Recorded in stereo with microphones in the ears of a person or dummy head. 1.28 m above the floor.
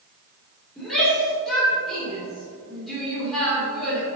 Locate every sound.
0.8 s a shout: 5° left (ahead or behind), 3 m